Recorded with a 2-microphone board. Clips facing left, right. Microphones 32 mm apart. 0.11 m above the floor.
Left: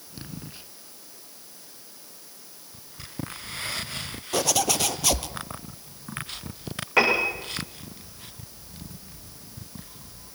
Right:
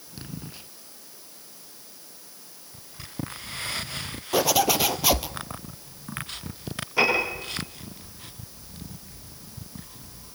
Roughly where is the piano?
Left.